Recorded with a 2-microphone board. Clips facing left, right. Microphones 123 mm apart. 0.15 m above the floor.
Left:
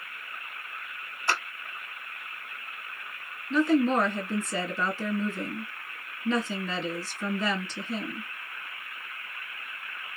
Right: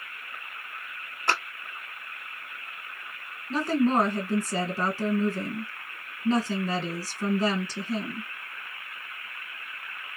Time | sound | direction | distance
1.3 | a clap | 55° right (ahead or behind) | 2.5 m
3.5 | a woman speaking | 40° right (ahead or behind) | 2 m